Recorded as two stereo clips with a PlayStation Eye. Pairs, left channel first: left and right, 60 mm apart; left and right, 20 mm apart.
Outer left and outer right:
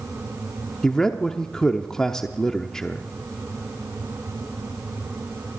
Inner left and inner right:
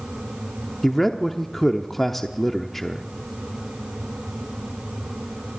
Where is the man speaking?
10° left (ahead or behind), 0.8 m.